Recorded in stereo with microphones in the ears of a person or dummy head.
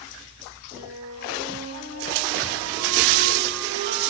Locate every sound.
0.7 s a flute: 70° right (ahead or behind), 4 m